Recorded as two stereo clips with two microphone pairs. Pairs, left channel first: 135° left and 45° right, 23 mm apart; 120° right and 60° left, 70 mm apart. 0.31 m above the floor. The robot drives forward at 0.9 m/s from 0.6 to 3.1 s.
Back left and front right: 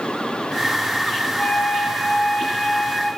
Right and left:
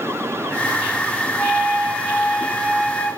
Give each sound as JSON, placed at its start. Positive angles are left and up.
{"t": 1.4, "sound": "a flute", "azimuth_deg": 155, "distance_m": 4.5}